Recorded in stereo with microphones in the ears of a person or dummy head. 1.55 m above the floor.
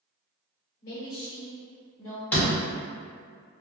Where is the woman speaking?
60° left (ahead or behind), 1.1 m.